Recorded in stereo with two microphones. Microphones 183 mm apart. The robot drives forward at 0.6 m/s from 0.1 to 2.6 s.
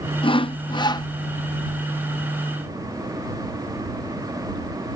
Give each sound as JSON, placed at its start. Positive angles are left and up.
{"t": 0.2, "sound": "sawing", "side_deg": 30}